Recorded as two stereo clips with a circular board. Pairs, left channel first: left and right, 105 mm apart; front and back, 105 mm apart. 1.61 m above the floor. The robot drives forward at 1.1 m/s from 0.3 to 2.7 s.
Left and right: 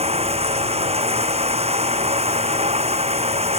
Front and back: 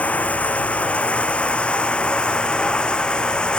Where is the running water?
75° right; by 3.6 s 80° right.